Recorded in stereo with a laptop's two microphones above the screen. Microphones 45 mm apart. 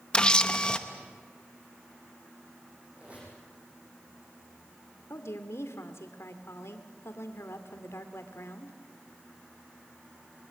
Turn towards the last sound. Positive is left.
turn(degrees=80)